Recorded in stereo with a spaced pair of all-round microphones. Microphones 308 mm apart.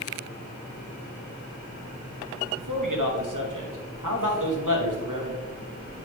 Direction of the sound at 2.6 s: 80° right.